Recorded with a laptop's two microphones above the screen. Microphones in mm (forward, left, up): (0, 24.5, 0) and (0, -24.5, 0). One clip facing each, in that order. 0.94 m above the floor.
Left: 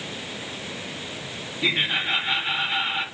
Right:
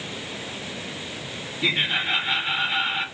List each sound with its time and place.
1.6 s laughter: 5° left (ahead or behind), 2.0 m